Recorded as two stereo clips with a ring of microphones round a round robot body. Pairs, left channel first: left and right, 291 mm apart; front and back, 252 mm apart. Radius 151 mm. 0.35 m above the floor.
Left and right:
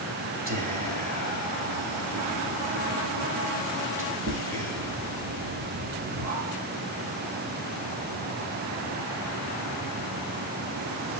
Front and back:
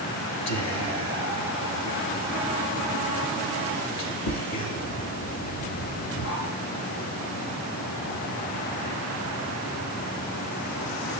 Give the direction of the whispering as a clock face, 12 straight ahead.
1 o'clock.